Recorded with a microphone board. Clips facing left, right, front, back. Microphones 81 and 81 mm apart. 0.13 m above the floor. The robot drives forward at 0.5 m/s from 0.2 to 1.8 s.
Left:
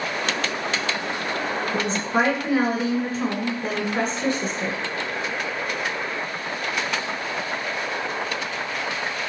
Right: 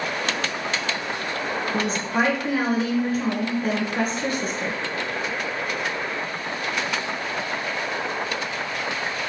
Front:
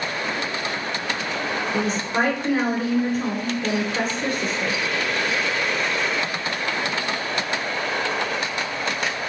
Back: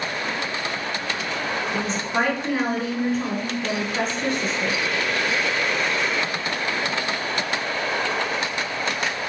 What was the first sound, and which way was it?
A woman speaking, 85° left.